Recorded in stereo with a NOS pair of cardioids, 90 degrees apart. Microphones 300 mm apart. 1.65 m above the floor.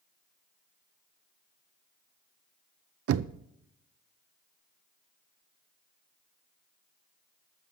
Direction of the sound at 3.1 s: 55° right.